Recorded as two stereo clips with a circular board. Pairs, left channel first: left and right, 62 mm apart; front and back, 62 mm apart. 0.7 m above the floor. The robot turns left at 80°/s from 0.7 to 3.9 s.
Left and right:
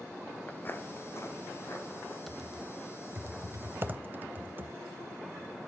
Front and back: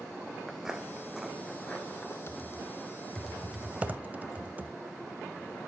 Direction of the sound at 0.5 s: 80° left.